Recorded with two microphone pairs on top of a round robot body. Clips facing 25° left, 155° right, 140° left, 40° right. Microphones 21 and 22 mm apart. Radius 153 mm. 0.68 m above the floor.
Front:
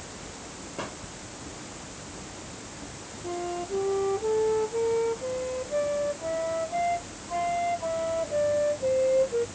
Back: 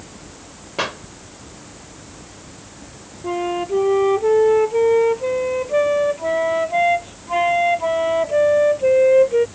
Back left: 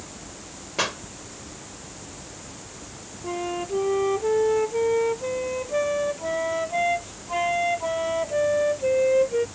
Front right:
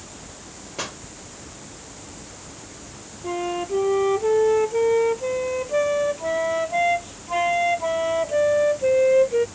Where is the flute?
125° right.